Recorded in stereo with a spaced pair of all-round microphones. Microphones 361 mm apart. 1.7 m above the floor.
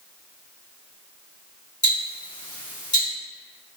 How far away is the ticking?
About 1.2 m.